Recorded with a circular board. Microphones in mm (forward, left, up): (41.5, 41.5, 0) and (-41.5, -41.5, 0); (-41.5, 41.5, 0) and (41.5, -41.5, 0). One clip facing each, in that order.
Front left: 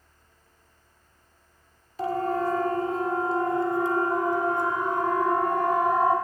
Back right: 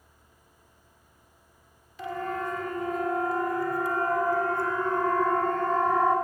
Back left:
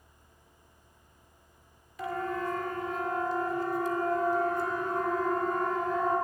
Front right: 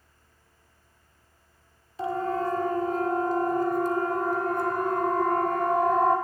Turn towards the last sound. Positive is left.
turn(degrees=-35)